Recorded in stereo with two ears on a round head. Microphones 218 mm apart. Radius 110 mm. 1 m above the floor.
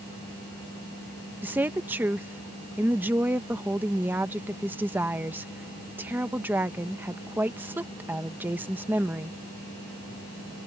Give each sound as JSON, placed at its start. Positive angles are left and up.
{"t": 1.4, "sound": "a woman speaking", "side_deg": -10}